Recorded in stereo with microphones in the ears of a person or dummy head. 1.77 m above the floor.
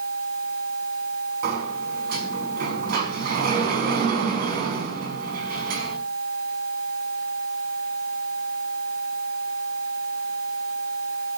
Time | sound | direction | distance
1.4 | a sliding door | 55° right (ahead or behind) | 5.5 m